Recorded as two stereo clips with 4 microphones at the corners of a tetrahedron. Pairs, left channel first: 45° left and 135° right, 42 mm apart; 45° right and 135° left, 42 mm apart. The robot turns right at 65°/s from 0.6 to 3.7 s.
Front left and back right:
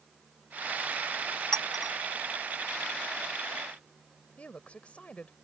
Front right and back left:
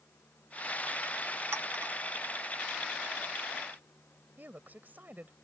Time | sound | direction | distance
1.5 | a clink | 120° left | ?
4.4 | a woman speaking | 100° left | ?